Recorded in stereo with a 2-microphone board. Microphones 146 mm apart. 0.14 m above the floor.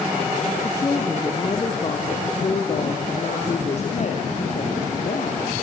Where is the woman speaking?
20° left (ahead or behind), 3.5 m; by 5.5 s 60° left (ahead or behind), 5.5 m.